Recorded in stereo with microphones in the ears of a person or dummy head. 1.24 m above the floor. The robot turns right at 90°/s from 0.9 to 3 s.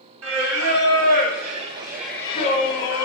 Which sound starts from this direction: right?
Singing, at 0.2 s.